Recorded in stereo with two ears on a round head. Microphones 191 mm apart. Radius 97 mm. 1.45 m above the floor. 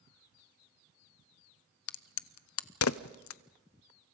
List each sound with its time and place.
1.9 s a crack: 75° left (ahead or behind), 0.6 m